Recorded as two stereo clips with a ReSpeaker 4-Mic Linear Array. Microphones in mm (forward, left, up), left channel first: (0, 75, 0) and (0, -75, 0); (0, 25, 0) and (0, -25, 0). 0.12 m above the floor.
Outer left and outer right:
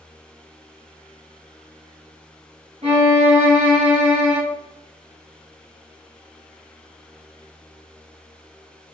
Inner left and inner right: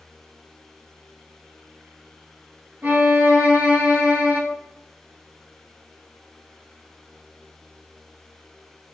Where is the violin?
45° right (ahead or behind), 1.1 m.